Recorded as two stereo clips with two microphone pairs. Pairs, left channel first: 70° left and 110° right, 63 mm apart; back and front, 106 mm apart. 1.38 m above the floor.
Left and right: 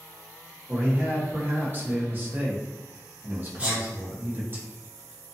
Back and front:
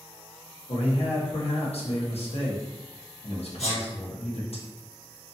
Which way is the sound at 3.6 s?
175° right.